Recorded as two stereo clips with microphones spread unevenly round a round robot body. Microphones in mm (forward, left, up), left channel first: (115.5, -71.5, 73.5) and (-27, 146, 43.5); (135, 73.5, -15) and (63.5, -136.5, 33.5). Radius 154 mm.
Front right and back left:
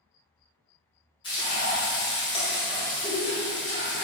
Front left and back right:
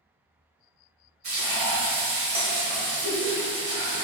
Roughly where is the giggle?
Behind.